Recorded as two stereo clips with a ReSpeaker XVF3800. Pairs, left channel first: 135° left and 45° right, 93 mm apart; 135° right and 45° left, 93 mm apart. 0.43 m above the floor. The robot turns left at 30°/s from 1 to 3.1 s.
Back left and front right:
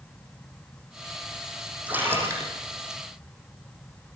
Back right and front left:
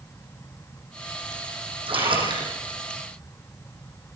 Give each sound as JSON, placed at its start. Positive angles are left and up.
{"t": 1.9, "sound": "a splash", "azimuth_deg": 30, "distance_m": 10.0}